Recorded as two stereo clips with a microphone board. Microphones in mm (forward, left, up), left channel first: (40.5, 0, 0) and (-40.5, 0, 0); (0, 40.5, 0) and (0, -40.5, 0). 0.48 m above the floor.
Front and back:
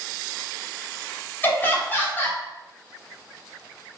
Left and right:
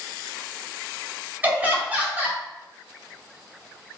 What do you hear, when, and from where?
1.4 s laughter: 40° right, 1.0 m